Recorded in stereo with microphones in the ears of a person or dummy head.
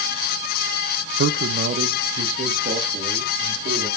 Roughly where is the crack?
I don't hear a crack.